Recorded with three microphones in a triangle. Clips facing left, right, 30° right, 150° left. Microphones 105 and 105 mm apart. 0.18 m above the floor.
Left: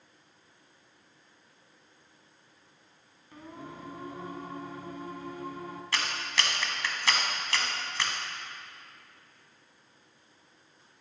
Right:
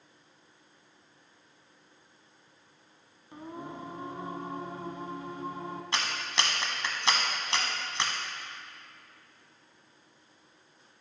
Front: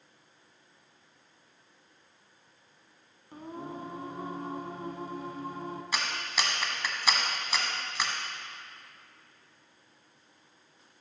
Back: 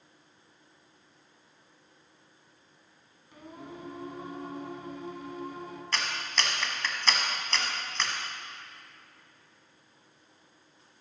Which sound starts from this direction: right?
A clap, at 5.9 s.